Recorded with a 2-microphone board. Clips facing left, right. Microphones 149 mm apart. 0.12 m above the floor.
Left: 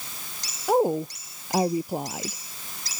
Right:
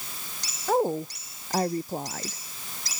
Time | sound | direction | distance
0.7 | a woman speaking | 10° left (ahead or behind) | ?